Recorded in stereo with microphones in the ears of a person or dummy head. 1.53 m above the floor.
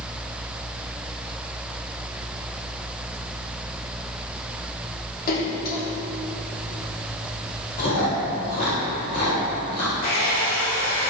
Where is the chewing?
50° left (ahead or behind), 3.5 m.